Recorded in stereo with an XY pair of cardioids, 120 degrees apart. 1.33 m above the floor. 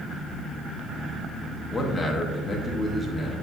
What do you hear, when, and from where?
1.7 s a man speaking: 20° left, 1.1 m